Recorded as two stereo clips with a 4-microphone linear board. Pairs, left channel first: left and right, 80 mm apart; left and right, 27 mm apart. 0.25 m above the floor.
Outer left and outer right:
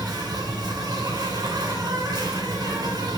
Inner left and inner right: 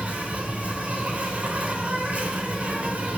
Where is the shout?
No shout in this recording.